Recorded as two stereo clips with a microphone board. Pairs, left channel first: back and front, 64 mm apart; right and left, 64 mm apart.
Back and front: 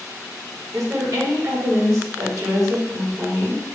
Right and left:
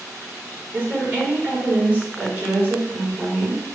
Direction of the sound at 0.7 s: 30° left.